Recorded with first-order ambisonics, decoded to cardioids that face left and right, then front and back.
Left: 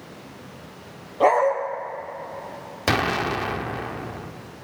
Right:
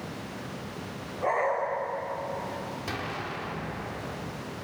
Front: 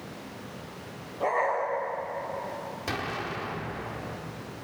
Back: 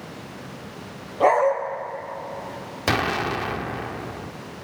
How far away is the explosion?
About 1.0 m.